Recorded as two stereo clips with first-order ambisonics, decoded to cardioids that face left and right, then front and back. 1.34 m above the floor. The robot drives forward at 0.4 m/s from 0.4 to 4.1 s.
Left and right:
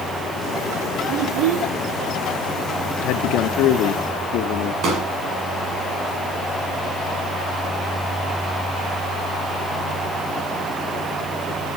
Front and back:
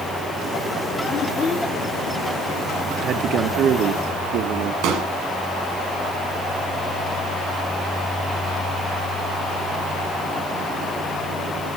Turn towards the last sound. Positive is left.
turn(degrees=-150)